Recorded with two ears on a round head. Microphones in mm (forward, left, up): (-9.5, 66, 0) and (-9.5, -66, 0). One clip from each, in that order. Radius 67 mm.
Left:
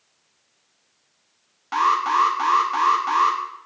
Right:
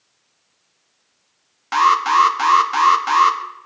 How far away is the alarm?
About 1.4 m.